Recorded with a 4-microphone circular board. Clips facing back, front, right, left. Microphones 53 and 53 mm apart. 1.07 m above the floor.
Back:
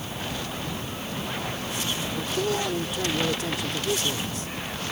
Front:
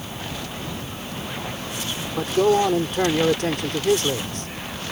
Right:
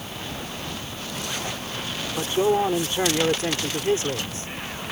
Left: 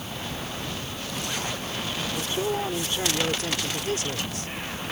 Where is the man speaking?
30° right.